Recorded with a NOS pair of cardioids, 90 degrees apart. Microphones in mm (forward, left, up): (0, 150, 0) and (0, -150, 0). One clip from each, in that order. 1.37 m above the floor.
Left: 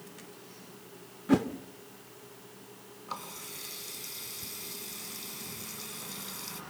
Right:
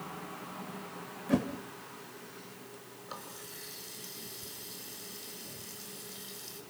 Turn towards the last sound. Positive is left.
turn(degrees=40)